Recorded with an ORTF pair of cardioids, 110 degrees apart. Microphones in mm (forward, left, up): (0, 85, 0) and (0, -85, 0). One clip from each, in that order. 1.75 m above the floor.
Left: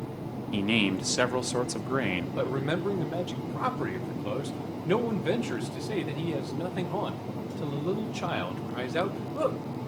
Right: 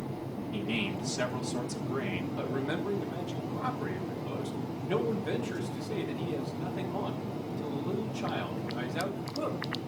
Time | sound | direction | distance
0.5 | a man speaking | 65° left | 1.2 m
2.4 | a man speaking | 65° left | 2 m